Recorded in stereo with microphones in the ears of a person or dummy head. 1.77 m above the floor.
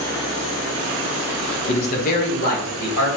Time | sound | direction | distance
1.7 | a man speaking | 35° left (ahead or behind) | 0.7 m